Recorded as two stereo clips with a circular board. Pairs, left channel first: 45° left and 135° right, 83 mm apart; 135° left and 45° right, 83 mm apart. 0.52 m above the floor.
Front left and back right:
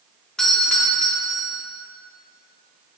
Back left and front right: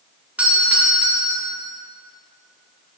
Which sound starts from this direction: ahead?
A doorbell, at 0.4 s.